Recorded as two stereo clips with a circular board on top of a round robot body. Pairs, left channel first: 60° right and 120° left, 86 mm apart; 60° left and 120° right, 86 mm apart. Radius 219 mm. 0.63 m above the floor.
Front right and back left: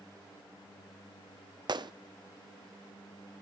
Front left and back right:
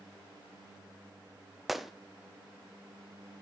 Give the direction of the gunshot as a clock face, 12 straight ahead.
7 o'clock.